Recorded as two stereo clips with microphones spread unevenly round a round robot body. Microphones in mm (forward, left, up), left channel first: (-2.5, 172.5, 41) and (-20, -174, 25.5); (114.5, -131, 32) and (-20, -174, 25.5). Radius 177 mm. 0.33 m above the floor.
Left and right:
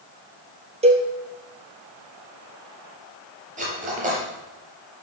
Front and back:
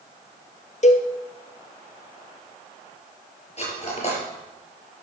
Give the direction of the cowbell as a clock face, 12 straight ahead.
1 o'clock.